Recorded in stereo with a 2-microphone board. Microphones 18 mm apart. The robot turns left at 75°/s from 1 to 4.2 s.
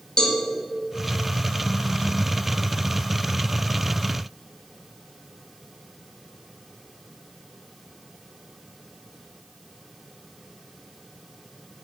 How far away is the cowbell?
About 1.9 m.